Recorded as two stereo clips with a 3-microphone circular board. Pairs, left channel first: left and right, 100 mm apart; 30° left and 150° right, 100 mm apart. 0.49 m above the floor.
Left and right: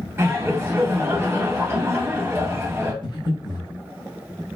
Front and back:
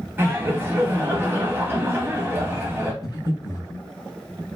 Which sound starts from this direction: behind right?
Laughter, at 0.2 s.